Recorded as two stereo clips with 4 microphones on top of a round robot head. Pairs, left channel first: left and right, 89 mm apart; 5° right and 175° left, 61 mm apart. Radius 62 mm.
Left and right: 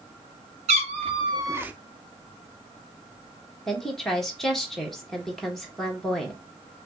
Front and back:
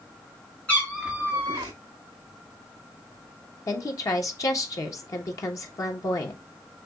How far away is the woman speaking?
About 1.1 m.